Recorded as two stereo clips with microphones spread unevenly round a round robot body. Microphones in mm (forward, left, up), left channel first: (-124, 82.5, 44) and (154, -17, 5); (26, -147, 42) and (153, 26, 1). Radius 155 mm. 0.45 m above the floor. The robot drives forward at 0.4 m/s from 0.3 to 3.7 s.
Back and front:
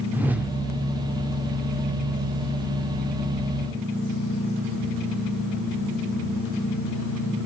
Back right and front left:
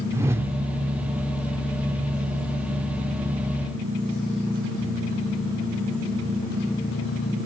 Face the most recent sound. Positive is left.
turn(degrees=165)